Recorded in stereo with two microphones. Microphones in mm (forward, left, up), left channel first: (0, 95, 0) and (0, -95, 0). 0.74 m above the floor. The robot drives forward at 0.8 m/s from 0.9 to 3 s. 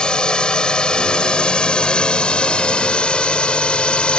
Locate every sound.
0.0 s a drone: 5° left (ahead or behind)